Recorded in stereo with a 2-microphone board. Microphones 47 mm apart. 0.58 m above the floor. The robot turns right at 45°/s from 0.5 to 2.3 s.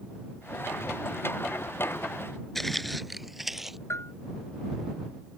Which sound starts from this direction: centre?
Footsteps, at 2.5 s.